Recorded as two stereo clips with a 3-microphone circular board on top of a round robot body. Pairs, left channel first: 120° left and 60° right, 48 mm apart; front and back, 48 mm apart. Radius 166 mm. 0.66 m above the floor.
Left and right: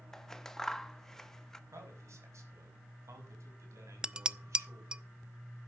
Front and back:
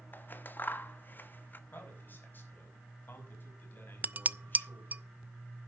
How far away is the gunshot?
No gunshot in this recording.